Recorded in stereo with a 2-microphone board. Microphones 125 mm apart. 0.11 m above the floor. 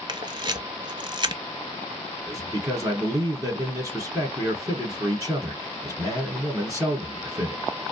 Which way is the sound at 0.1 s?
40° right (ahead or behind).